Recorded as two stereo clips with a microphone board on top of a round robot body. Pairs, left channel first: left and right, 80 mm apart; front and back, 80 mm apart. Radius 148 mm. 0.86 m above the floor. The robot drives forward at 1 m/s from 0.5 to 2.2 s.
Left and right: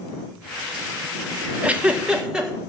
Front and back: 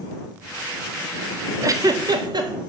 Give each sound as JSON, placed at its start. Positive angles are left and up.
{"t": 1.6, "sound": "a giggle", "azimuth_deg": -155, "distance_m": 0.9}